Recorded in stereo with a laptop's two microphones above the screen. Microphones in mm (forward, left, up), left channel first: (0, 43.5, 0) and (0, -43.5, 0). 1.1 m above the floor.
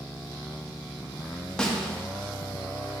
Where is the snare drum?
10° left (ahead or behind), 1.0 m.